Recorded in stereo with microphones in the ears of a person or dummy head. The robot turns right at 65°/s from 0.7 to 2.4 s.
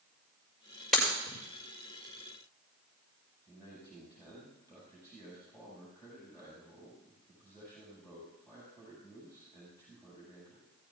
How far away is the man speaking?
About 7.5 m.